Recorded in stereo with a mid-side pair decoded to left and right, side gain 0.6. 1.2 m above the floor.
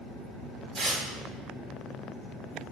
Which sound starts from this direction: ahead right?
Tearing paper, at 0.8 s.